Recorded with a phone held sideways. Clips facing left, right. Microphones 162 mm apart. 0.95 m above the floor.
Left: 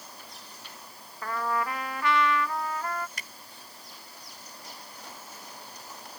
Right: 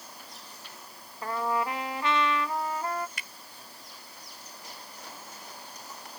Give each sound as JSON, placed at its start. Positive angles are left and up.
{"t": 1.2, "sound": "a trumpet", "side_deg": -20}
{"t": 3.2, "sound": "a finger snap", "side_deg": 40}